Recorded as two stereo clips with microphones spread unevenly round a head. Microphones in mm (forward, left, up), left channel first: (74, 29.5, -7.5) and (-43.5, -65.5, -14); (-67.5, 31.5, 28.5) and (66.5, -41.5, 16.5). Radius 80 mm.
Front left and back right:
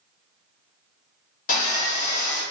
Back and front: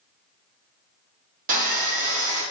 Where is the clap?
No clap in this recording.